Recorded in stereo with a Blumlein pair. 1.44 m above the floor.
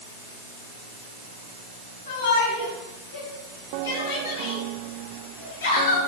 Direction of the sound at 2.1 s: 60° left.